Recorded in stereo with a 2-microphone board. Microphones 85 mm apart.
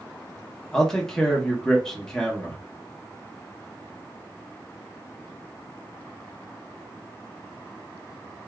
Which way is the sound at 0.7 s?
5° left (ahead or behind).